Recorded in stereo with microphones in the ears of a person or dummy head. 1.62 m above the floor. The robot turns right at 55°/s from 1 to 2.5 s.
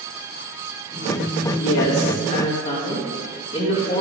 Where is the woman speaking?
100° left, 2.5 m; by 4.0 s 150° left, 2.5 m.